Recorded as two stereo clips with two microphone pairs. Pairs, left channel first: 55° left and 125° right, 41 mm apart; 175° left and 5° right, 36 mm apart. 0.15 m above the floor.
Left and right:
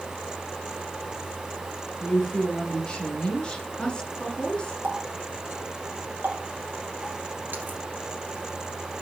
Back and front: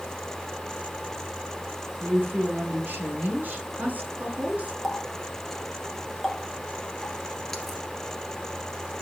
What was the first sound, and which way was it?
A woman speaking, 10° right.